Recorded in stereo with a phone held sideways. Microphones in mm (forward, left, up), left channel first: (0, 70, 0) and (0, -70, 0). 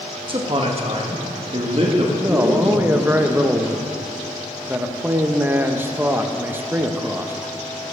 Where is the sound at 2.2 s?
15° right (ahead or behind), 0.7 m.